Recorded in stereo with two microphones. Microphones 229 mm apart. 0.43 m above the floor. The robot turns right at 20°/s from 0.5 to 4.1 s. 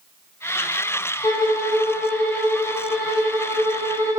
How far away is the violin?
About 1.1 m.